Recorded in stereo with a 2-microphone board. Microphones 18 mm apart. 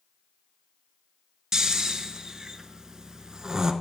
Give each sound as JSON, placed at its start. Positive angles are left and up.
{"t": 1.5, "sound": "snoring", "side_deg": -35, "distance_m": 0.6}